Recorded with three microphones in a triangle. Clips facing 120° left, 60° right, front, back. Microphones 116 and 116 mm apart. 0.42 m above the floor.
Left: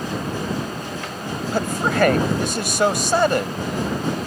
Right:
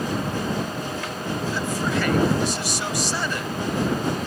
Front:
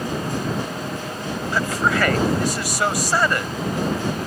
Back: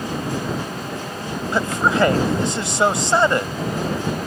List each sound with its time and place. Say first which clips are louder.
1.5 s a man speaking: left 6 dB, back 2 dB; 120° left